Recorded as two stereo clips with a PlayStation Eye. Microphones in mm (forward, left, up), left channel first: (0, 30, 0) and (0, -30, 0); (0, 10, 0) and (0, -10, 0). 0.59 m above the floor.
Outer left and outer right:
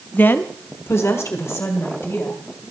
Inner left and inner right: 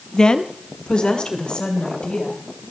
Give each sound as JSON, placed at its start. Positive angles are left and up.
{"t": 0.1, "sound": "a woman speaking", "side_deg": 30, "distance_m": 0.8}